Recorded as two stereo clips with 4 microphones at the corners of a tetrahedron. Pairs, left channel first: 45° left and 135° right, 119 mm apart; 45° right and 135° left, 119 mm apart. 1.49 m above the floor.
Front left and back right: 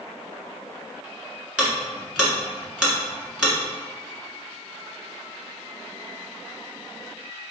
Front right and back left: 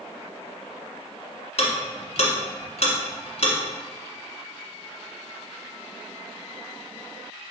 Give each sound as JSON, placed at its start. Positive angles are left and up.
{"t": 1.6, "sound": "ticking", "azimuth_deg": -55, "distance_m": 1.4}